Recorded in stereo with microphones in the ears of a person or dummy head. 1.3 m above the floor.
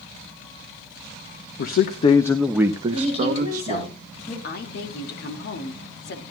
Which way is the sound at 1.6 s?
55° left (ahead or behind).